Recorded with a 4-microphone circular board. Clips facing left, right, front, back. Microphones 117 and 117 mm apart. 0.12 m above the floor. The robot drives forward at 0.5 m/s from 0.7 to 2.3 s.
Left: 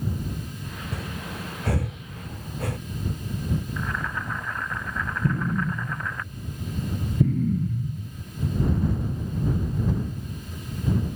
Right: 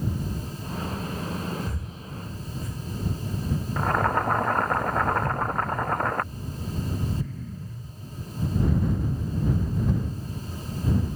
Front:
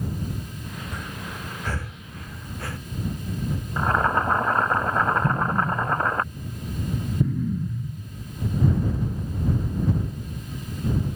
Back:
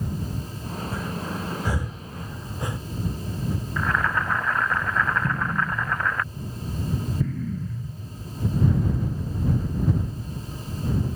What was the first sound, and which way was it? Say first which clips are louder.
Breathing: right 3 dB, back 5 dB; 95° left.